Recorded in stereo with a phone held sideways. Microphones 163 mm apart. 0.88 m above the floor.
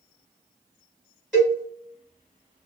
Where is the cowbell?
5° left (ahead or behind), 1.6 m.